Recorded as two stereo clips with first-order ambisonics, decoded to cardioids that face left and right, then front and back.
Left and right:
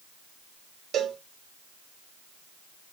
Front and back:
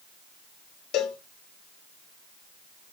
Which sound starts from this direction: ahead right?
A cowbell, at 0.9 s.